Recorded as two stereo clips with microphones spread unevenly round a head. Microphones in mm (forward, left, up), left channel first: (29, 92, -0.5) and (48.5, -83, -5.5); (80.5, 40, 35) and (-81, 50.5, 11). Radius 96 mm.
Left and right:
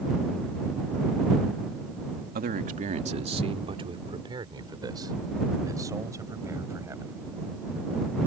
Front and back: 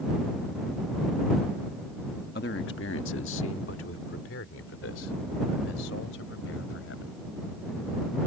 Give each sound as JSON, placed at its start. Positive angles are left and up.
{"t": 2.4, "sound": "a man speaking", "azimuth_deg": -45}